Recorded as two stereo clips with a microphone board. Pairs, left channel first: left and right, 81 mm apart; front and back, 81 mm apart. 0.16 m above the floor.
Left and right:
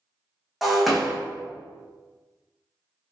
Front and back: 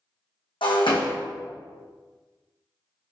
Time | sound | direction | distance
0.6 | breaking glass | straight ahead | 1.0 m